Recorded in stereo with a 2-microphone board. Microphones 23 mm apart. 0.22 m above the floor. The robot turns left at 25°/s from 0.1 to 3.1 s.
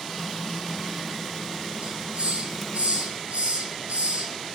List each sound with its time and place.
1.8 s a hiss: 50° right (ahead or behind), 0.8 m; by 4.5 s 80° right, 0.8 m